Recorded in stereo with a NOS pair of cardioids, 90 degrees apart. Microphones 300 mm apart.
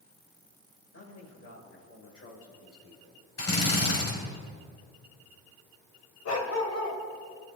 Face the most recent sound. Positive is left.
turn(degrees=60)